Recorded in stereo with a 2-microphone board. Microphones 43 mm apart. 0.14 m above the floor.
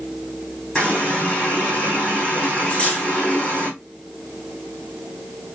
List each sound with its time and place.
0.8 s a running tap: 25° left (ahead or behind), 4 m
2.7 s cutlery clinking: 25° left (ahead or behind), 3.5 m